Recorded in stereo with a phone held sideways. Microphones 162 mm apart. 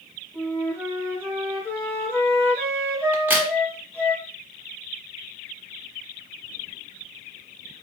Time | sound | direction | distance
0.3 | a flute | 10° left (ahead or behind) | 1.9 m
3.1 | a crack | 10° right (ahead or behind) | 1.0 m